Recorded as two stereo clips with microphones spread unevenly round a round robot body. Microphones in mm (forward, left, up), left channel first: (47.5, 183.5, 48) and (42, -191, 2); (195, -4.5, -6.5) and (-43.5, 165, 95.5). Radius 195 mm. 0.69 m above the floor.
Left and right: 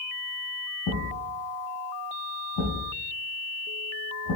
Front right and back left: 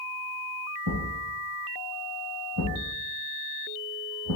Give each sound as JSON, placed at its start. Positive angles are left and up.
{"t": 0.9, "sound": "a thud", "azimuth_deg": 135, "distance_m": 3.5}